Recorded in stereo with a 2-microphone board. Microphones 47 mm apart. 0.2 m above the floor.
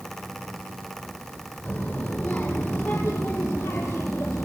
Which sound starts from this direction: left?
A child speaking, at 1.6 s.